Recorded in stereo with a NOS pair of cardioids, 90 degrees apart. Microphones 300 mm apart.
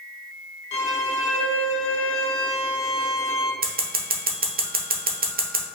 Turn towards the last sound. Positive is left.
turn(degrees=-30)